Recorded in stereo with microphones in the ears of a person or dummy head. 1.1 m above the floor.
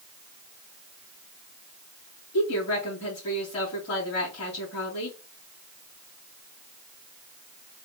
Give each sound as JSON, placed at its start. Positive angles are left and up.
{"t": 2.3, "sound": "a woman speaking", "side_deg": 50, "distance_m": 2.0}